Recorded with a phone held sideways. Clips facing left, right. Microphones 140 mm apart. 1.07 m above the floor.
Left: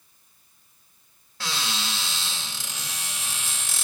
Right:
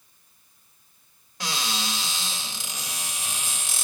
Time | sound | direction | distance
1.4 | a cupboard door | 15° right (ahead or behind) | 2.5 m